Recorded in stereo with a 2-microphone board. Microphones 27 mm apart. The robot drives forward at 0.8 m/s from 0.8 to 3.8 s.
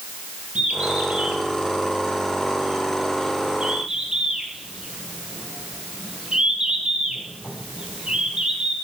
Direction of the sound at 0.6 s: 55° right (ahead or behind).